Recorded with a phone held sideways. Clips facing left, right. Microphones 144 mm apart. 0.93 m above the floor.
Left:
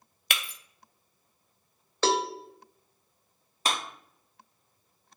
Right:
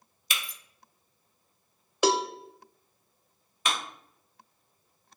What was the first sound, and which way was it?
Breaking glass, 65° left (ahead or behind).